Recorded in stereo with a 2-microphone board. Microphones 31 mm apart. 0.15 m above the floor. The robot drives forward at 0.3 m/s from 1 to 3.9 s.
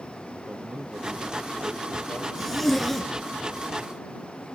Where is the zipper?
5° left (ahead or behind), 1.9 m.